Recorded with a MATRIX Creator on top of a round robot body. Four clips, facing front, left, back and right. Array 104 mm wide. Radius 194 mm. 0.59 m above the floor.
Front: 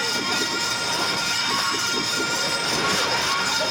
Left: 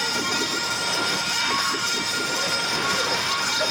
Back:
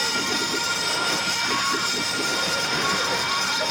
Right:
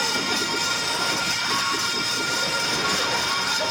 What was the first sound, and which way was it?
Only background noise.